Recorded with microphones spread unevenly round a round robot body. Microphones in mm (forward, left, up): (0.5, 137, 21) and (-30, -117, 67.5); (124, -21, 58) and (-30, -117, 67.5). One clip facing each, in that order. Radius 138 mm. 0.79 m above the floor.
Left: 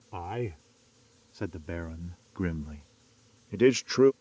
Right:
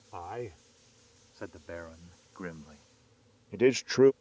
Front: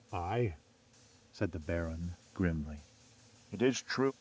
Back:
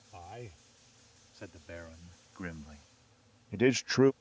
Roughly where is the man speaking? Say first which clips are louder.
Left 5 dB, front 13 dB; ahead left.